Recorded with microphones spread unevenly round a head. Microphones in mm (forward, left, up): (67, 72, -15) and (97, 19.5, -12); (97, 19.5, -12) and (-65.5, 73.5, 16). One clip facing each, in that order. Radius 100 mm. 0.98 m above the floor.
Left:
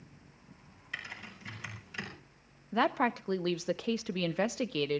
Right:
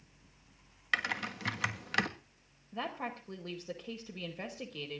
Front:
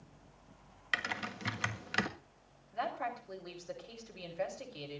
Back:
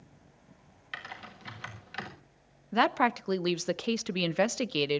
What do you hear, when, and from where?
0.9 s typing on a keyboard: 50° right, 1.4 m
2.7 s a woman speaking: 155° left, 0.6 m